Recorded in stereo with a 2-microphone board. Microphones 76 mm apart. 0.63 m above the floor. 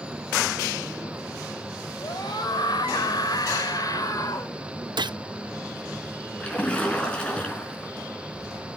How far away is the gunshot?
About 0.5 m.